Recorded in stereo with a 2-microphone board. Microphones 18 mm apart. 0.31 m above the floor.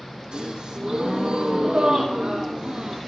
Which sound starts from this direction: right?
A gasp, at 0.3 s.